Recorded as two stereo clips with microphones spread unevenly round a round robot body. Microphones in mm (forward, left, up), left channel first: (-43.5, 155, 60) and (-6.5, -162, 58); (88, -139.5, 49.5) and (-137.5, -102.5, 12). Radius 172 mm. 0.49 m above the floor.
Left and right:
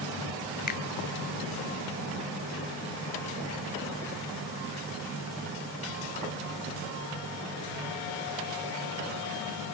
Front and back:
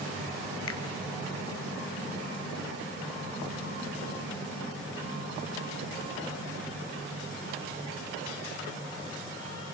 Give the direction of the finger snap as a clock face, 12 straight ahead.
11 o'clock.